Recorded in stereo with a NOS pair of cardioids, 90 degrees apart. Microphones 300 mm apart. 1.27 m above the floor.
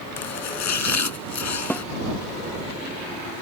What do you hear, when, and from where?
0.2 s chopping: 65° left
1.7 s a snare drum: 5° left